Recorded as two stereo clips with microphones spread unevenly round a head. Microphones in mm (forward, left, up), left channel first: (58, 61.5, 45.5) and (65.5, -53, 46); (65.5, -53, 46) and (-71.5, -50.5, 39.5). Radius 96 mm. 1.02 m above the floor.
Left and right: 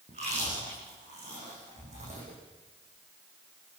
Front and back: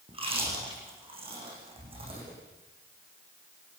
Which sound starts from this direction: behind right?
Chewing, at 0.1 s.